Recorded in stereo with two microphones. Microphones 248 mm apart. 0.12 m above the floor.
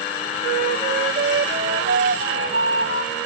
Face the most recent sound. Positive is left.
turn(degrees=-50)  # may be behind; listen again after turning